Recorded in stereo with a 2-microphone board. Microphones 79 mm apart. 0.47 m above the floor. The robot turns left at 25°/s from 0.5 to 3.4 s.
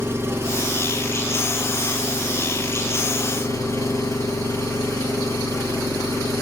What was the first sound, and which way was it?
An engine running, 150° right.